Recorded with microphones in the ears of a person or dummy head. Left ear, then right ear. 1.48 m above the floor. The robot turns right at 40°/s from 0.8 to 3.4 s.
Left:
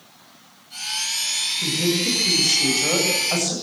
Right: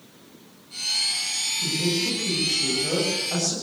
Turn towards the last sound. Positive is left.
turn(degrees=155)